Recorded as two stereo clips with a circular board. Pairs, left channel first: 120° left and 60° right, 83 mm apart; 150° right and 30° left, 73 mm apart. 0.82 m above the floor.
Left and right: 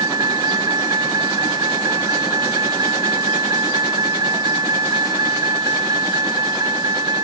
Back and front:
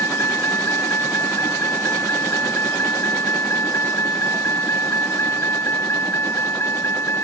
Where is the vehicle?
100° right.